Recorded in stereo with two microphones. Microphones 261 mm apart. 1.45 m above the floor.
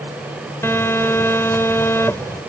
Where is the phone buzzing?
10° left (ahead or behind).